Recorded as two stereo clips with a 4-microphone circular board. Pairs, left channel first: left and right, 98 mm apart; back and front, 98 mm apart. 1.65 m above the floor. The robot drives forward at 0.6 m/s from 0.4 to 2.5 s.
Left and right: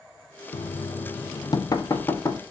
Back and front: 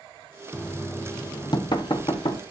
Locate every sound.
0.5 s knocking: 95° left, 0.7 m; by 2.4 s 150° left, 1.4 m